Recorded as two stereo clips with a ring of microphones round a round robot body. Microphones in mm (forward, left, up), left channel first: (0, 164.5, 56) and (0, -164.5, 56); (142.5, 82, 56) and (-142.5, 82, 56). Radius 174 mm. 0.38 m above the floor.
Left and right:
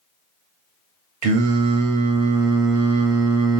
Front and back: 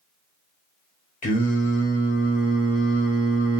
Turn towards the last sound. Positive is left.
turn(degrees=-65)